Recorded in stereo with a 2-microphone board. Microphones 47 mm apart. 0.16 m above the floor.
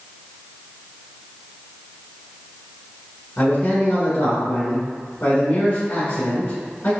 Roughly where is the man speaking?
Left.